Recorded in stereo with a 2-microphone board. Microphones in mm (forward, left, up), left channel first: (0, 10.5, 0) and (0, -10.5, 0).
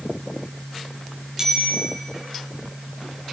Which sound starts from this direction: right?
A bicycle bell, at 1.4 s.